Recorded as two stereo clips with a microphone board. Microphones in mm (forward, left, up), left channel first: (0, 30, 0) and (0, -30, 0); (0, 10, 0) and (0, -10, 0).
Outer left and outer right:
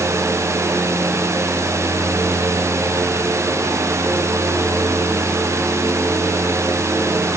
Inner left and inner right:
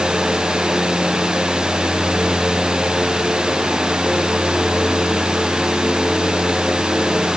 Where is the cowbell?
I don't hear a cowbell.